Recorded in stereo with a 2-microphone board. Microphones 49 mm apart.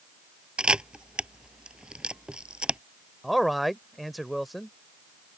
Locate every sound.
0.6 s a camera shutter: 20° right (ahead or behind)
3.2 s a man speaking: centre (ahead or behind)